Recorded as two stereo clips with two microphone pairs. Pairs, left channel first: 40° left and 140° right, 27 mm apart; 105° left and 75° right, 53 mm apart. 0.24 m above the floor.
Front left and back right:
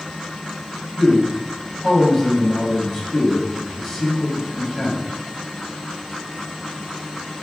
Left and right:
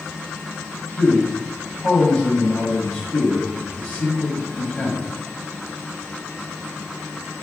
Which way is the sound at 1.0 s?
140° left.